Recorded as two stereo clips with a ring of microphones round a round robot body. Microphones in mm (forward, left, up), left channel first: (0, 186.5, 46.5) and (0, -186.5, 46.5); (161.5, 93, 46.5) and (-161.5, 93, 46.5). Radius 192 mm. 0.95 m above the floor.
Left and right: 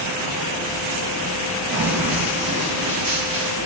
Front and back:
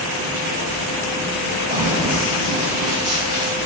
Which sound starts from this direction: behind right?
Running footsteps, at 1.7 s.